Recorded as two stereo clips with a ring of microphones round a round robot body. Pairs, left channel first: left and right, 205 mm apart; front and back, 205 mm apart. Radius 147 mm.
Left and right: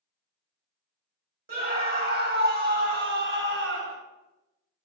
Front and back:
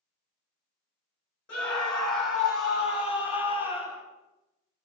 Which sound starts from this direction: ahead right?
A scream, at 1.5 s.